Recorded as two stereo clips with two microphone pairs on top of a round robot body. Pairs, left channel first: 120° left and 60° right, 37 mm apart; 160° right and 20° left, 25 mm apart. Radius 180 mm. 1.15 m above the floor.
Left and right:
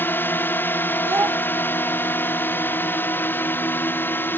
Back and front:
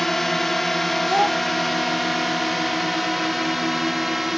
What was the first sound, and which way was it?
A drone, 125° left.